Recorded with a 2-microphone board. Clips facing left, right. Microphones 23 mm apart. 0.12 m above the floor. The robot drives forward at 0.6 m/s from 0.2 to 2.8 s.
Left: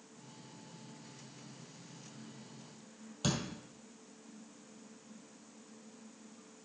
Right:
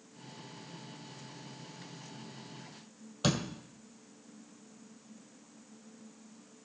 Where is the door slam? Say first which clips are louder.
Right 4 dB; 15° right (ahead or behind), 2 m.